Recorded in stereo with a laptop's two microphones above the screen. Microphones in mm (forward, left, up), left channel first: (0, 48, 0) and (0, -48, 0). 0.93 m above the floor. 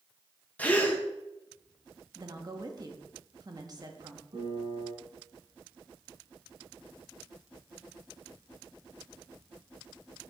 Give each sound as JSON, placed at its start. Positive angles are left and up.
{"t": 0.6, "sound": "a gasp", "side_deg": 15, "distance_m": 0.8}
{"t": 2.1, "sound": "a woman speaking", "side_deg": -40, "distance_m": 1.3}
{"t": 4.3, "sound": "a piano", "side_deg": -65, "distance_m": 2.5}